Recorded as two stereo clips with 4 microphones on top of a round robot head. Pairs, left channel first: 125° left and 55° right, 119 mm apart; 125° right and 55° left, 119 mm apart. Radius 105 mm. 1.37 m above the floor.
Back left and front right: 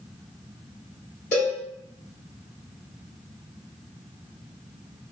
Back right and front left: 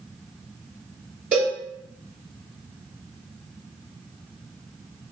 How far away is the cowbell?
About 1.2 m.